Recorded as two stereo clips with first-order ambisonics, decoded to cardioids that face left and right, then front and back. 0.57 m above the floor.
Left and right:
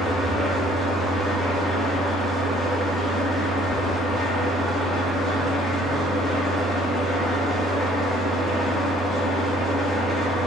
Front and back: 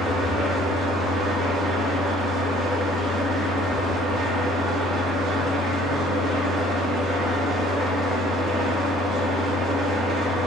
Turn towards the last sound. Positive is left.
turn(degrees=-175)